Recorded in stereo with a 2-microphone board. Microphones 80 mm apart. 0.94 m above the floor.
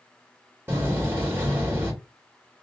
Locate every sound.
0.7 s a door slam: 30° right (ahead or behind), 2 m